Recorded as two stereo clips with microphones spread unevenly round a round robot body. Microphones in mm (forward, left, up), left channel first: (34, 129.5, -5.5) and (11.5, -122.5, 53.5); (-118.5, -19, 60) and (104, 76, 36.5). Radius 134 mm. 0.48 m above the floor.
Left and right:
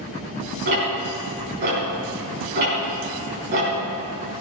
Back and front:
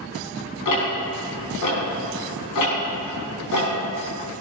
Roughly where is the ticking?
Behind right.